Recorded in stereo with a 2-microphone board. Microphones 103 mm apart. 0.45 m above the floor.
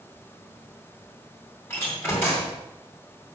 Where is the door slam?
20° left (ahead or behind), 3 m.